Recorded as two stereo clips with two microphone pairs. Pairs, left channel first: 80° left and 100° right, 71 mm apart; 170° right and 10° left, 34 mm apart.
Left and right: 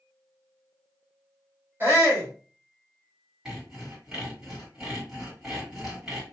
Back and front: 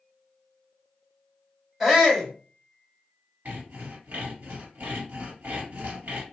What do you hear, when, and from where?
1.8 s a shout: 55° right, 1.8 m
3.5 s sawing: 20° right, 2.5 m